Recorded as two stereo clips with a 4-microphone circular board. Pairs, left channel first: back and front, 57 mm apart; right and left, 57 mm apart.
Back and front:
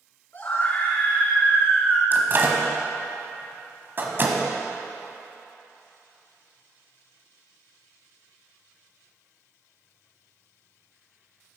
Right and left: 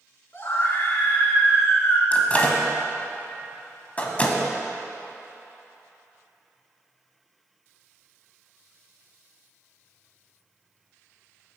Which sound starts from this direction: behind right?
A scream, at 0.3 s.